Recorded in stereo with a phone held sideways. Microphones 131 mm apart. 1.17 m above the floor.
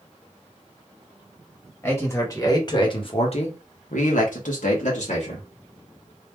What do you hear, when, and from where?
1.8 s a man speaking: 20° left (ahead or behind), 1.9 m; by 5.5 s 60° left (ahead or behind), 1.6 m